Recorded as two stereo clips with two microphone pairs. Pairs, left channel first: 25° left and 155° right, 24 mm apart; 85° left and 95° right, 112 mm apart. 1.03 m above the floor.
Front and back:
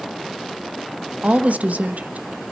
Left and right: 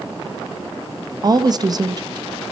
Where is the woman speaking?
150° right, 0.8 m.